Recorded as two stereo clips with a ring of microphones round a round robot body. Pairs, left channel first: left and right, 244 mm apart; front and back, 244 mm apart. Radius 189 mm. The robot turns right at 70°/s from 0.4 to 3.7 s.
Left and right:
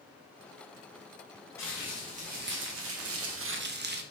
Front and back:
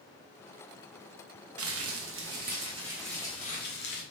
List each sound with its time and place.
1.6 s crumpling: 170° left, 0.8 m; by 4.0 s 45° right, 0.8 m